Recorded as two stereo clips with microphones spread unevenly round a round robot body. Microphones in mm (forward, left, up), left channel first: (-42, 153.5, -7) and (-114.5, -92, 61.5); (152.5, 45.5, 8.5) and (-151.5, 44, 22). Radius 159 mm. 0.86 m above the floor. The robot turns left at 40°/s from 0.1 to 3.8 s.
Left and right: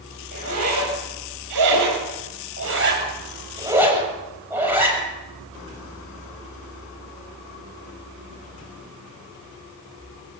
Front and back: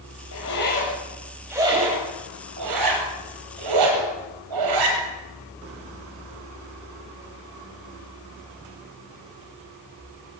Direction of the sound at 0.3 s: 45° right.